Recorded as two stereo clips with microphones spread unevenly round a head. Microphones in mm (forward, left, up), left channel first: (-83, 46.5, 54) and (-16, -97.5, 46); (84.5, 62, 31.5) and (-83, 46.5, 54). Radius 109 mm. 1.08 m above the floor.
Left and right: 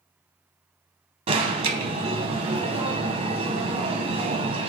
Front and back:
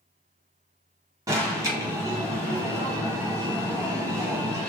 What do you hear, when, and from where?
1.3 s an alarm: 105° right, 0.9 m